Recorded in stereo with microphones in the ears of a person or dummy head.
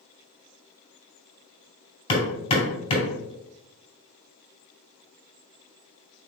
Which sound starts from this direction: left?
Hammering, at 2.1 s.